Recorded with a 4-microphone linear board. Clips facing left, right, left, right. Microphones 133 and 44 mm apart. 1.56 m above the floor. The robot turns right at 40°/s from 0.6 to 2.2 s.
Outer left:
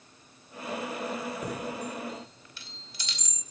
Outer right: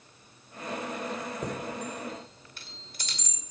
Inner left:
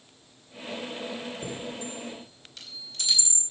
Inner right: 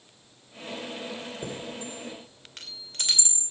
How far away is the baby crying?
No baby crying in this recording.